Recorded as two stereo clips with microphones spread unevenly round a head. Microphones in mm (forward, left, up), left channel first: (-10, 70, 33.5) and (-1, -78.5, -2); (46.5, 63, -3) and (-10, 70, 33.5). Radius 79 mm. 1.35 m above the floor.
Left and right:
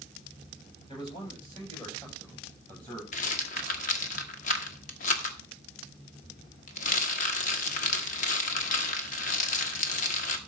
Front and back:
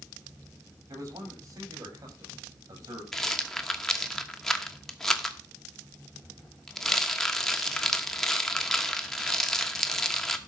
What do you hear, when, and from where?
0.9 s a man speaking: 155° left, 7 m; by 3.0 s 175° left, 6.5 m
3.1 s a rattle: 100° left, 1.3 m